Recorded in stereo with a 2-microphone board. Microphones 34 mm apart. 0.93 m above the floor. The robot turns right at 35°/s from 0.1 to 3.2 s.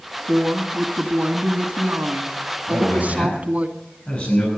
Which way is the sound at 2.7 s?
65° left (ahead or behind).